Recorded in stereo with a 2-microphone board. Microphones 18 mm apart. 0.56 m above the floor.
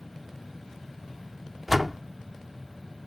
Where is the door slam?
15° right (ahead or behind).